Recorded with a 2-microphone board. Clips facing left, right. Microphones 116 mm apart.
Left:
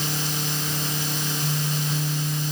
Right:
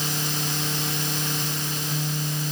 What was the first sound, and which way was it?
Only background noise.